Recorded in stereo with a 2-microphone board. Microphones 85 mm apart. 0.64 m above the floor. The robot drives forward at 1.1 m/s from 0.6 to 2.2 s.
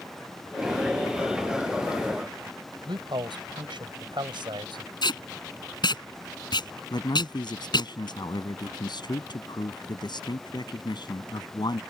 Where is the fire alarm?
I don't hear a fire alarm.